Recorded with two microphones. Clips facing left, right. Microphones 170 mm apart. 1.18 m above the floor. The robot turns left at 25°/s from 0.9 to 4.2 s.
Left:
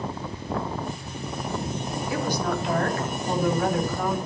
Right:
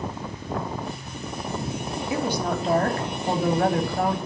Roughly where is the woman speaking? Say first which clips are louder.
Right 1 dB; ahead right.